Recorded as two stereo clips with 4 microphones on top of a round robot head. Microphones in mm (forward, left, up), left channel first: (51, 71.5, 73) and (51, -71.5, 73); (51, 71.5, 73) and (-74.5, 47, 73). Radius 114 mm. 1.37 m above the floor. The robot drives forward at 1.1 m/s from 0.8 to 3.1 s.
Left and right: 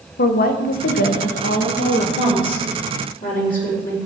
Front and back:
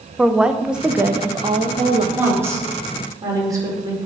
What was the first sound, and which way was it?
A woman speaking, 105° left.